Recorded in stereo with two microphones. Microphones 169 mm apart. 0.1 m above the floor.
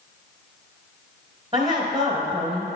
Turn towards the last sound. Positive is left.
turn(degrees=-30)  # may be behind; listen again after turning